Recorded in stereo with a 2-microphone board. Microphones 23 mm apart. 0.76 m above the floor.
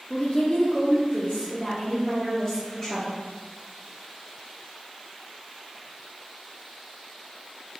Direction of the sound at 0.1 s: 40° left (ahead or behind).